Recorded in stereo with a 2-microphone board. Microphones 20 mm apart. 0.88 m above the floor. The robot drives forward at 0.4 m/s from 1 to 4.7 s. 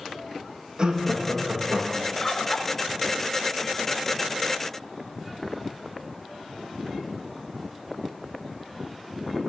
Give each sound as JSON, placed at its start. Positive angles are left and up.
{"t": 0.8, "sound": "laughter", "side_deg": -40, "distance_m": 1.1}
{"t": 2.2, "sound": "a bird", "side_deg": 25, "distance_m": 0.5}